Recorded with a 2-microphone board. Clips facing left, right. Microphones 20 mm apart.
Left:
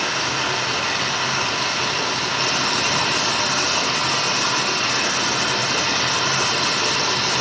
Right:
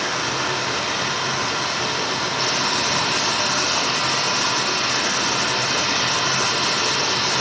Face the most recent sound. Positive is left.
turn(degrees=75)  # may be behind; listen again after turning